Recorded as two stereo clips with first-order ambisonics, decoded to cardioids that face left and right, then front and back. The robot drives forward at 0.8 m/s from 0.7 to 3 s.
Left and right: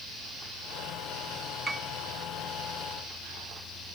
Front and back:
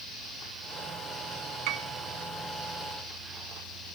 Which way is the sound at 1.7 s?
165° right.